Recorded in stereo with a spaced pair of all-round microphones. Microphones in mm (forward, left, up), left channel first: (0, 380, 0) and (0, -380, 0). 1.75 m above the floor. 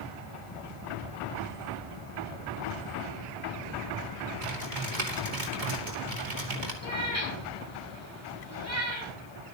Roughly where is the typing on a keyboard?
Right.